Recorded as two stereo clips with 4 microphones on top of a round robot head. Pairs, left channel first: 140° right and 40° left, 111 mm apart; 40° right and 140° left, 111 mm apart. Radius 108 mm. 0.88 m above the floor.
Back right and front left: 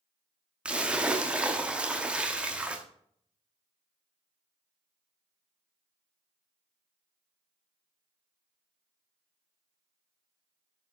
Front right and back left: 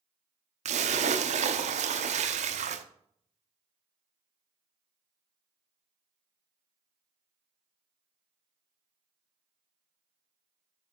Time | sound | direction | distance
0.7 | a splash | 120° left | 0.8 m